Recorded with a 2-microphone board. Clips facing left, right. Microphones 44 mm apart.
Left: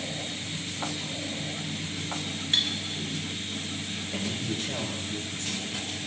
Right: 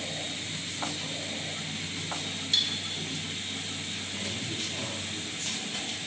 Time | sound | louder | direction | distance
2.5 | cutlery clinking | left 2 dB | 35° left (ahead or behind) | 0.6 m
4.1 | a man speaking | left 5 dB | 70° left (ahead or behind) | 4.5 m